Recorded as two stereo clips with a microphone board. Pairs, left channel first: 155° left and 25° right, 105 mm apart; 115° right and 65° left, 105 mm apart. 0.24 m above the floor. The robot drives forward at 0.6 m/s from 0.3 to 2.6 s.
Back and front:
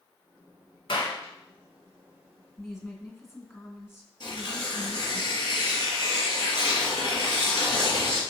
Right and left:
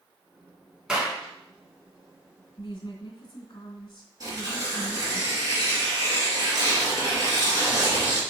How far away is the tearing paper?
About 3.5 m.